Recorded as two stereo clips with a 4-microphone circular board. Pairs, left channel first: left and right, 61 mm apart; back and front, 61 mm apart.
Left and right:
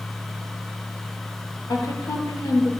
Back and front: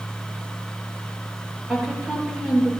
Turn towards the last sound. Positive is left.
turn(degrees=80)